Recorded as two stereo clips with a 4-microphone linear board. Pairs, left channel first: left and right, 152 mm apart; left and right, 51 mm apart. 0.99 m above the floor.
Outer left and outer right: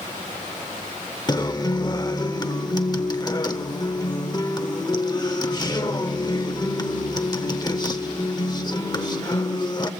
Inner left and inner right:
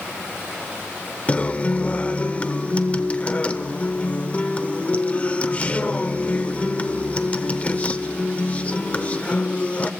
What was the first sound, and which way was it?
A guitar, 30° left (ahead or behind).